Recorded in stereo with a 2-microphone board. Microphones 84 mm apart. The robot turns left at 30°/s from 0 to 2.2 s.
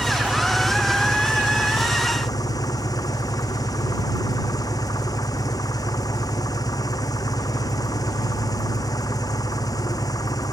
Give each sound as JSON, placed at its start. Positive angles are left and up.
{"t": 0.0, "sound": "an engine running", "azimuth_deg": -160}